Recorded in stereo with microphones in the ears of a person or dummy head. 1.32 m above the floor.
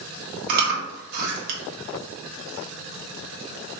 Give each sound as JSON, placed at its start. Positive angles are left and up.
{"t": 0.5, "sound": "chewing", "side_deg": -50, "distance_m": 1.1}